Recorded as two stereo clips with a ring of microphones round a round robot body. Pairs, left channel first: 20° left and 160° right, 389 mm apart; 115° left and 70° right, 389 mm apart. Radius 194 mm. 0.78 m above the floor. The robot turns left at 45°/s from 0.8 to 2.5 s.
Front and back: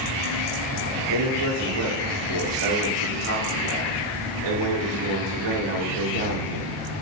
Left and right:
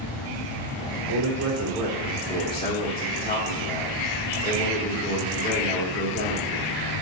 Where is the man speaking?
115° right, 2.0 m; by 6.8 s straight behind, 2.0 m.